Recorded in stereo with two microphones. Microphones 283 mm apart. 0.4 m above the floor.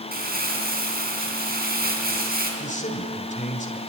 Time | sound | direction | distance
0.1 | crumpling | 30° right (ahead or behind) | 4.5 m
2.6 | a man speaking | 25° left (ahead or behind) | 1.9 m